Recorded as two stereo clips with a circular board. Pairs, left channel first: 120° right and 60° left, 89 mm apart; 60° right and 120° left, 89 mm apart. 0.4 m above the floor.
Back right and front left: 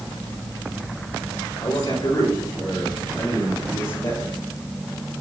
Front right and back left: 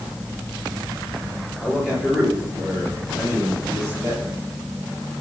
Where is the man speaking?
165° right, 9.5 m; by 4.3 s 175° right, 10.5 m.